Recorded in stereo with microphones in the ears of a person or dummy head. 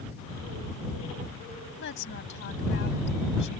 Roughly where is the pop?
No pop in this recording.